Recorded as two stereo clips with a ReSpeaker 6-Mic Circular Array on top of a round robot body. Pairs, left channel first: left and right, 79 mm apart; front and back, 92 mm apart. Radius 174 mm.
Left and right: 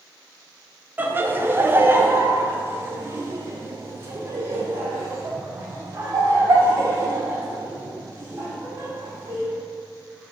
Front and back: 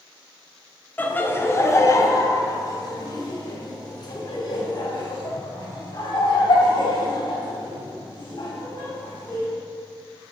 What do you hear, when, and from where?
1.0 s laughter: 50° right, 1.3 m; by 9.5 s 30° right, 5.5 m